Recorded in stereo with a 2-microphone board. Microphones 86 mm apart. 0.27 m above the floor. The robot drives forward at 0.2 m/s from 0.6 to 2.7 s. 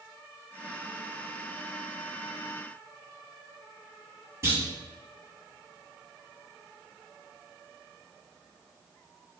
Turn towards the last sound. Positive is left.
turn(degrees=-35)  # may be behind; listen again after turning